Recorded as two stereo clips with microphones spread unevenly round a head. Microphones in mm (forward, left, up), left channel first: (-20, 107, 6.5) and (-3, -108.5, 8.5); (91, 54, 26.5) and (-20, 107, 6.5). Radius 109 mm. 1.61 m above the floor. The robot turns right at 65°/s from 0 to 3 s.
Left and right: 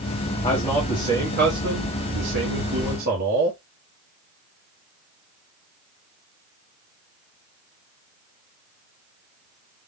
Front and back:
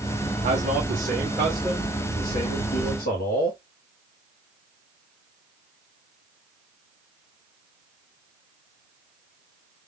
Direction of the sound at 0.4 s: 165° left.